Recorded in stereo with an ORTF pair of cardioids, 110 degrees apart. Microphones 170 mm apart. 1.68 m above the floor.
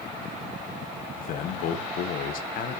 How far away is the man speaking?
About 1.0 m.